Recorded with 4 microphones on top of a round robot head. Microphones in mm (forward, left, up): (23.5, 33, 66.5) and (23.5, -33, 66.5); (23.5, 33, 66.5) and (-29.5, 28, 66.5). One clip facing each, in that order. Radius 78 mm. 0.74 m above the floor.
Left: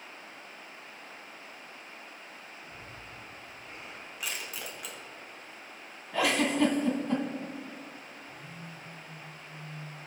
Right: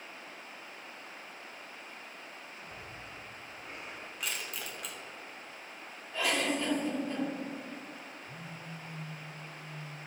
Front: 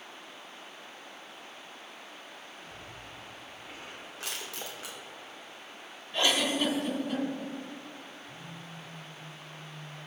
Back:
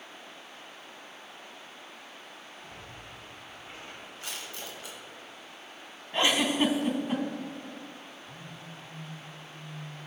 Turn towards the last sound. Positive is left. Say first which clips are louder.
# even, even
turn(degrees=-90)